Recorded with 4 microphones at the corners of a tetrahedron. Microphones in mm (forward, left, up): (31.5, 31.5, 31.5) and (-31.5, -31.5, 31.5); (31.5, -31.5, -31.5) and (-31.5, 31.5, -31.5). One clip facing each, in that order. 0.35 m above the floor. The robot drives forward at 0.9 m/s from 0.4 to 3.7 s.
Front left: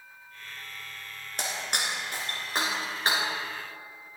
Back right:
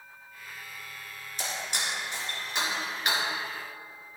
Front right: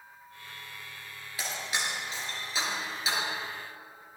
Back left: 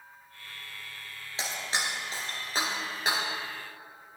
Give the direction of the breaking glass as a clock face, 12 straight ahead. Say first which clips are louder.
Front left 2 dB, back left 1 dB; 10 o'clock.